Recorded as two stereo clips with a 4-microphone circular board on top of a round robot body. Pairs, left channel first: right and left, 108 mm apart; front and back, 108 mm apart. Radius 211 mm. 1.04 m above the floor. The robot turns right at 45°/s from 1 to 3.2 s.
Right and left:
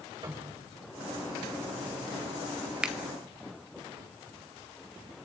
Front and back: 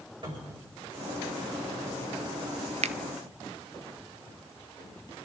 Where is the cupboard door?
140° left, 4.5 m.